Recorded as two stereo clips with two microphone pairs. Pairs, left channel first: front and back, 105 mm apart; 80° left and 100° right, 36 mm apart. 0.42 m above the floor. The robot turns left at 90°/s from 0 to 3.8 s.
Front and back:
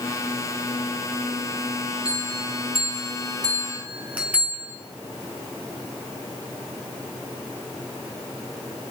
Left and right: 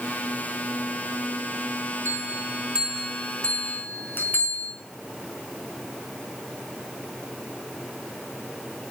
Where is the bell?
100° right, 4 m; by 4.7 s 105° left, 4 m.